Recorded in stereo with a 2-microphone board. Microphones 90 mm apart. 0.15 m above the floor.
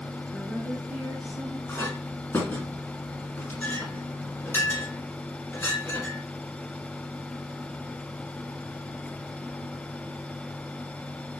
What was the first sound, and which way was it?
A woman speaking, 5° right (ahead or behind).